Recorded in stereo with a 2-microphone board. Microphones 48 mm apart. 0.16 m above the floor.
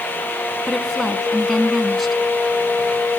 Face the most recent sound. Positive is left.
turn(degrees=0)  # may be behind; listen again after turning